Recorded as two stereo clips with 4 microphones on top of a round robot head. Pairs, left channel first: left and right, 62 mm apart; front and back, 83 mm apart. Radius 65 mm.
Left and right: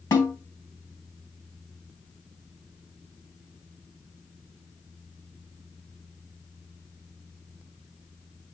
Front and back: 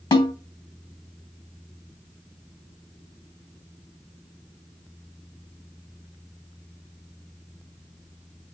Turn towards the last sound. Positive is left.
turn(degrees=35)